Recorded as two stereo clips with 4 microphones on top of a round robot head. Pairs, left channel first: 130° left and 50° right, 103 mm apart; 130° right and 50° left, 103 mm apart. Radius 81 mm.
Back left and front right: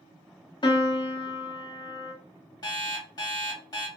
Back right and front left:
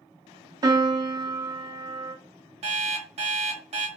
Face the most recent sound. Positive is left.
turn(degrees=75)